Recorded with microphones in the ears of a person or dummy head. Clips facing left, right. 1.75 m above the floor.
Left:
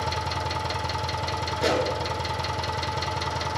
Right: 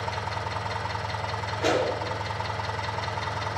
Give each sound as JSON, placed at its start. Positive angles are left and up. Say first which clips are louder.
{"t": 0.0, "sound": "an engine running", "louder": "left 3 dB", "side_deg": 60, "distance_m": 1.2}
{"t": 1.6, "sound": "a pop", "louder": "even", "side_deg": 70, "distance_m": 5.0}